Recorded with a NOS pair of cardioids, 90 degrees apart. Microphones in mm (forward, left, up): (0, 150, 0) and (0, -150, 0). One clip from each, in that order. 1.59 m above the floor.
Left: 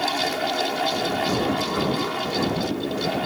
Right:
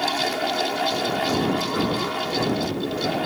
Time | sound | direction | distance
0.0 | a fan | 5° right | ?